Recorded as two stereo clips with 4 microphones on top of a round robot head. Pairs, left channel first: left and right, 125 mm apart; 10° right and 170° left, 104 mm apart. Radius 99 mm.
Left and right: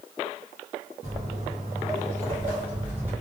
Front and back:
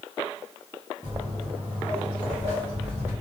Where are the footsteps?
65° right, 1.1 m; by 3.1 s 165° right, 1.8 m.